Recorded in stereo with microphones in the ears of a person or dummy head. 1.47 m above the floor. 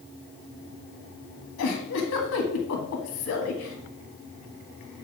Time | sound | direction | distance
1.6 | a giggle | 75° left (ahead or behind) | 2.0 m